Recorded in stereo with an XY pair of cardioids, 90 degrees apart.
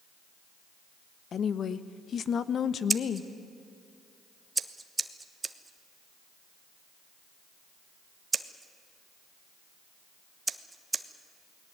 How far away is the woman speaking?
About 1.1 m.